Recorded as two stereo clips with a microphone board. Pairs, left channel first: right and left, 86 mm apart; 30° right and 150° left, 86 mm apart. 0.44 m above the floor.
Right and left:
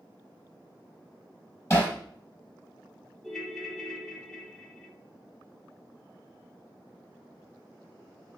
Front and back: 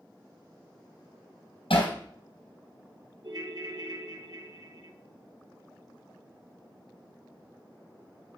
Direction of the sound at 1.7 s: 35° right.